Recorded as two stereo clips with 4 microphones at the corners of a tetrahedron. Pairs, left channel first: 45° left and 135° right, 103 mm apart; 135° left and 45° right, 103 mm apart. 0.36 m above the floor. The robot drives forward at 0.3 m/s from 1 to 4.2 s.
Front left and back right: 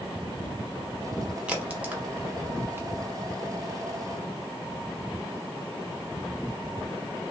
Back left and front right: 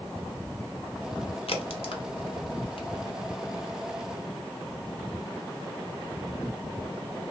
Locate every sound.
1.5 s a crack: 145° left, 0.8 m; by 2.9 s 160° left, 1.1 m